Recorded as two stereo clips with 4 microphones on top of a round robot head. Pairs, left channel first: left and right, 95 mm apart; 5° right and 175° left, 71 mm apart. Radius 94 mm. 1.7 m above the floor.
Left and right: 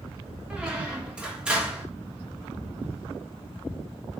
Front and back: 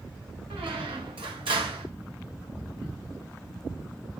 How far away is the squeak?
About 1.2 m.